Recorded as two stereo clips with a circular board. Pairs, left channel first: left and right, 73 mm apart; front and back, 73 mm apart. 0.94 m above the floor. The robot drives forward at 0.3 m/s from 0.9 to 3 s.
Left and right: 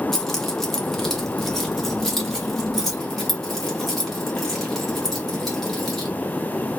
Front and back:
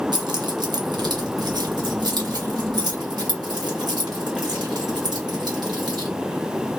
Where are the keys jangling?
175° left, 0.7 m.